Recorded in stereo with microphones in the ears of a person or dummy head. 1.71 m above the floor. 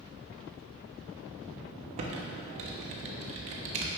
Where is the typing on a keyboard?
40° right (ahead or behind), 0.9 m.